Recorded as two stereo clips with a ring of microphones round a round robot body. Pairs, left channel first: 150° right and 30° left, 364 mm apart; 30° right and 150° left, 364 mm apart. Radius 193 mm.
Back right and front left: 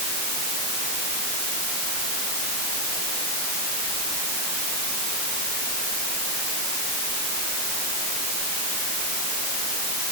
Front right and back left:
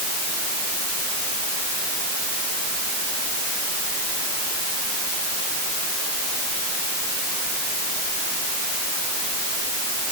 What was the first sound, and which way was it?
Only background noise.